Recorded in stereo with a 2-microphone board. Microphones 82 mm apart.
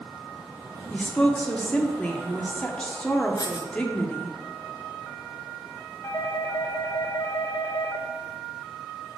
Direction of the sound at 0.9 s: 15° left (ahead or behind).